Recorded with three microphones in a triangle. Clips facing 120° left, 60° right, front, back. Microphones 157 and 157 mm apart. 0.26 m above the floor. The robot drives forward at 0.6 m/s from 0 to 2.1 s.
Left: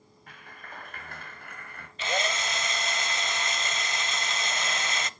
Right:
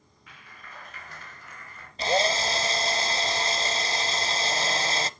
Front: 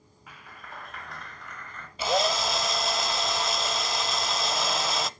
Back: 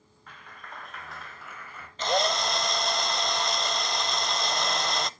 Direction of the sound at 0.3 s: 80° left.